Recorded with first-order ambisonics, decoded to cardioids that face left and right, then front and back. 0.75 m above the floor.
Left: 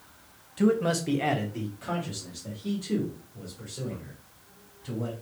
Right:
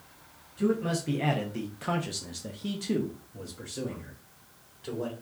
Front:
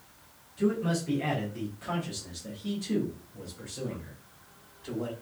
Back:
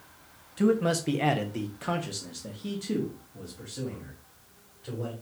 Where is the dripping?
No dripping in this recording.